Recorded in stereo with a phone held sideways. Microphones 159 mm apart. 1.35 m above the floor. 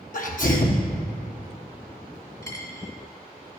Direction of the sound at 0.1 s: 55° left (ahead or behind).